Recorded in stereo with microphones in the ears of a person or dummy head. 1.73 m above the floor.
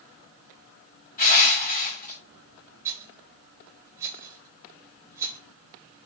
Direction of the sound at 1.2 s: 45° left (ahead or behind).